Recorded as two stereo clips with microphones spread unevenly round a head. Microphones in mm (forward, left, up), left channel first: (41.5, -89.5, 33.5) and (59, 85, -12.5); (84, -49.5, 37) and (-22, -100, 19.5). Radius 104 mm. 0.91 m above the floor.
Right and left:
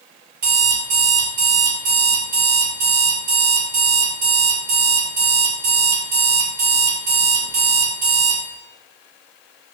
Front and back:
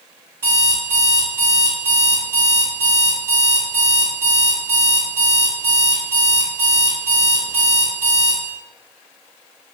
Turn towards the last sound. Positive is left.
turn(degrees=130)